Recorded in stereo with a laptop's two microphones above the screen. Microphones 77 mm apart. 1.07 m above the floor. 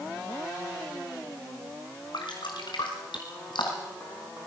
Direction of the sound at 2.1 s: 75° left (ahead or behind).